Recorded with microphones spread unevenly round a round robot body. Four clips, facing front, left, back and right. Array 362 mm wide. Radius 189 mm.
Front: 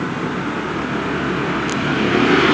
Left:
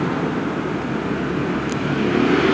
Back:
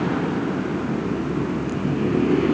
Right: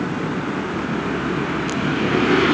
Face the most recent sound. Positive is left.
No sound to turn to.